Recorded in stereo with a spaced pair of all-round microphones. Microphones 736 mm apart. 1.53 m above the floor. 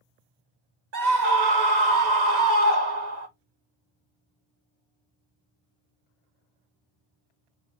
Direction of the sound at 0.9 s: 65° right (ahead or behind).